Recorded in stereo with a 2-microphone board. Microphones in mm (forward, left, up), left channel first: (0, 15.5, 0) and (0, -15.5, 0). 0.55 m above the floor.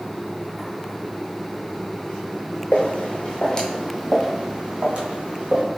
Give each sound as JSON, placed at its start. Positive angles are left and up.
{"t": 2.7, "sound": "footsteps", "side_deg": 50, "distance_m": 1.2}